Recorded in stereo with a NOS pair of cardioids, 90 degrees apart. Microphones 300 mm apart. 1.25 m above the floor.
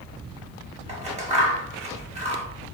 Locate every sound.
0.9 s scissors: 25° right, 1.1 m